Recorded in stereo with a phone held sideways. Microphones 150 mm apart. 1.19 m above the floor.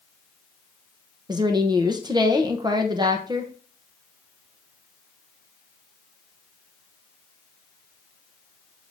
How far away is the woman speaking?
About 1.0 m.